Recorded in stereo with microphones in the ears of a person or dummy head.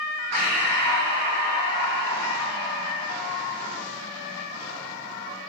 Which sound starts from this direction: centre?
Breathing, at 0.3 s.